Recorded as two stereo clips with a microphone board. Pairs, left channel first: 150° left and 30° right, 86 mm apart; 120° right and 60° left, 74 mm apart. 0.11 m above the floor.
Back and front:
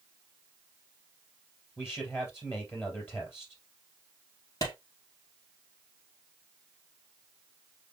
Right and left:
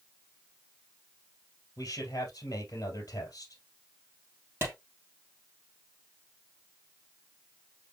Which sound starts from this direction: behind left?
A clap, at 4.6 s.